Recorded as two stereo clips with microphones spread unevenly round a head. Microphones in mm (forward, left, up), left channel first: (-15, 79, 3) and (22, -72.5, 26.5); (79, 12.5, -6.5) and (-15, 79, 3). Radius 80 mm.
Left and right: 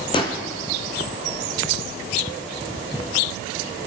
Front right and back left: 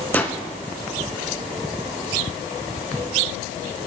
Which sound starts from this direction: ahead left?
A whoosh, at 0.1 s.